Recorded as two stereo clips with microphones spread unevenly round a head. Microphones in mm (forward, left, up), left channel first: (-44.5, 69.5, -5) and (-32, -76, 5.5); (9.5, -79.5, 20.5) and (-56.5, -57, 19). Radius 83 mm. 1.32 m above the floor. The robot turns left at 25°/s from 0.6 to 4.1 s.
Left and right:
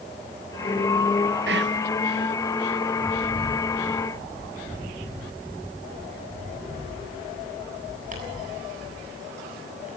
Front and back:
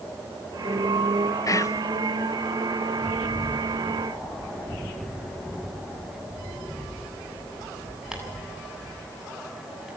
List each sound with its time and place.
1.5 s whispering: 60° right, 0.8 m; by 1.8 s 70° right, 0.8 m
3.1 s a bird: 95° right, 8 m; by 10.0 s 115° right, 8 m